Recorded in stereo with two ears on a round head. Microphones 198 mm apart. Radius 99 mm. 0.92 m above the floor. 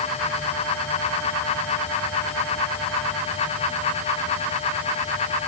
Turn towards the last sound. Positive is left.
No sound to turn to.